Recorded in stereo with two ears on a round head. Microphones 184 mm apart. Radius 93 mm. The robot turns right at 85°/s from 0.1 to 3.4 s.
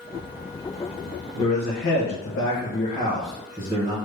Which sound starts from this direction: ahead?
A man speaking, at 1.4 s.